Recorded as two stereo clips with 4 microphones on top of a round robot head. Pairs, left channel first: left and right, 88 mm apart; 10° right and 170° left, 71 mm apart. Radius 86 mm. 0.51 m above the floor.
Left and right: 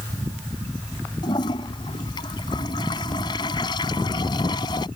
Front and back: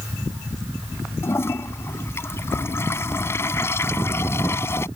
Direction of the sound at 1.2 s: 45° left.